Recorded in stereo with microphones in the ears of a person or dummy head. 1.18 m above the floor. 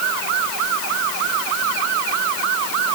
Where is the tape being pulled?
No tape being pulled in this recording.